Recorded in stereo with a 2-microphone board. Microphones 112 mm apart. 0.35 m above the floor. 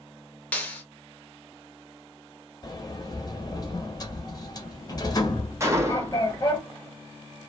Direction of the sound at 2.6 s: 35° left (ahead or behind).